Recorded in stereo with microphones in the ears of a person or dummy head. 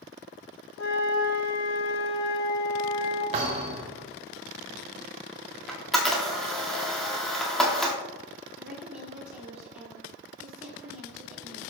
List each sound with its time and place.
0.8 s a flute: 90° left, 1.4 m
3.3 s a thud: 35° right (ahead or behind), 1.6 m
5.7 s a camera shutter: centre (ahead or behind), 1.8 m
8.6 s a woman speaking: 10° right (ahead or behind), 4.5 m